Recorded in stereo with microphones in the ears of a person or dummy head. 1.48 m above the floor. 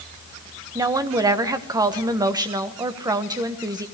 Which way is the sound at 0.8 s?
20° right (ahead or behind).